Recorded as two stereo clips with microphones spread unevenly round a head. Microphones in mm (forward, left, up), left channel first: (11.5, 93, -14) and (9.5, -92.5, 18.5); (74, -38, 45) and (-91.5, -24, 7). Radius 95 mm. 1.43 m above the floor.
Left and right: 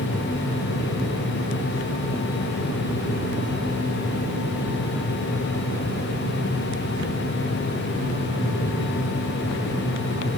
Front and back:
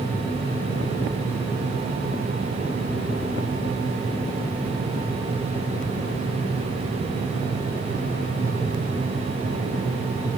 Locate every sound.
Only background noise.